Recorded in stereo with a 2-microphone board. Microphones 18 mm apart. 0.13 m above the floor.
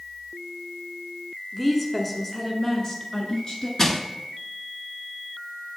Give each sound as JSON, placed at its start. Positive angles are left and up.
{"t": 1.5, "sound": "a woman speaking", "side_deg": -5, "distance_m": 1.1}
{"t": 3.8, "sound": "crushing", "side_deg": 30, "distance_m": 0.8}